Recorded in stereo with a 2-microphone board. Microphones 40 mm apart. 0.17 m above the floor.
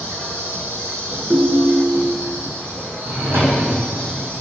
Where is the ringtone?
50° right (ahead or behind), 0.8 m.